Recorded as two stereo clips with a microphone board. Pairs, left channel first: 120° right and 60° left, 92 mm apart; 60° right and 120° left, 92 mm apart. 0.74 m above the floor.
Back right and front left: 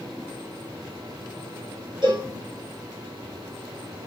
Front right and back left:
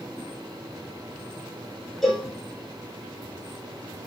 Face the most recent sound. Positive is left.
turn(degrees=25)